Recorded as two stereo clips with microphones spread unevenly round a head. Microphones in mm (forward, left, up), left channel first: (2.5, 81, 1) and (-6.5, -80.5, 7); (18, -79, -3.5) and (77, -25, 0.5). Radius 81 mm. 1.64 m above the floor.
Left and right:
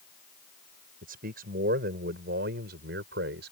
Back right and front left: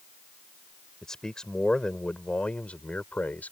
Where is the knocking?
I don't hear knocking.